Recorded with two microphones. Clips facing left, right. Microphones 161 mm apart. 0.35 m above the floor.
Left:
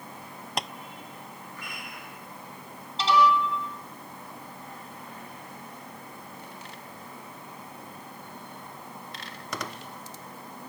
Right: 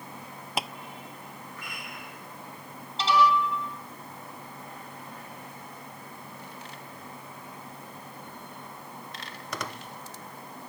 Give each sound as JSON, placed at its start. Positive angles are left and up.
{"t": 0.6, "sound": "tapping", "side_deg": -5}